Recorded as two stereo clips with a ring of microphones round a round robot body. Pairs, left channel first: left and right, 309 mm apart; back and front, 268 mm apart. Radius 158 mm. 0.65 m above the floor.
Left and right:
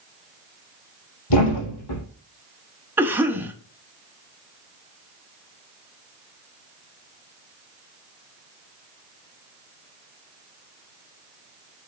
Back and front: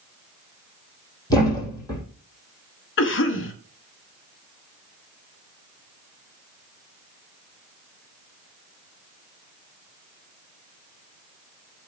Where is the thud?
105° left, 4 m.